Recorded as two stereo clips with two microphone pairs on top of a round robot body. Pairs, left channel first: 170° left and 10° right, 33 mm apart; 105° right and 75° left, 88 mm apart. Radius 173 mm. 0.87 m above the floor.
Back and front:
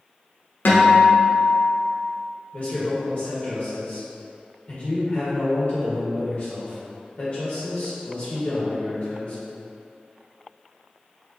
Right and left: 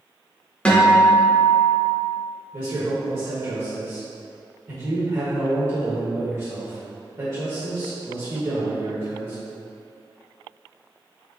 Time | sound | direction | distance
0.7 | a guitar | straight behind | 1.0 m
2.5 | a man speaking | 120° left | 1.5 m